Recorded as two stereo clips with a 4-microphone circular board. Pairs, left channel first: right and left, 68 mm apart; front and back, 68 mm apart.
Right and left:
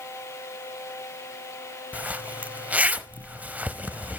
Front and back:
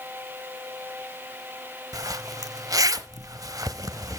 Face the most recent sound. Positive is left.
turn(degrees=155)